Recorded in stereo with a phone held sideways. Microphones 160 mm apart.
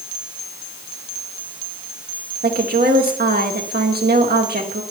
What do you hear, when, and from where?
2.4 s a woman speaking: 75° right (ahead or behind), 2.0 m